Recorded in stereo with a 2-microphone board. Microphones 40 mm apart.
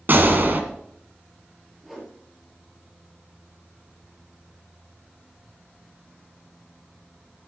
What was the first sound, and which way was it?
A gunshot, 50° right (ahead or behind).